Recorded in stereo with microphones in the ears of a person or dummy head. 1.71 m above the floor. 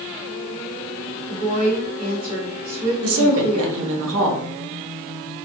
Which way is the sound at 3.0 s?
75° right (ahead or behind).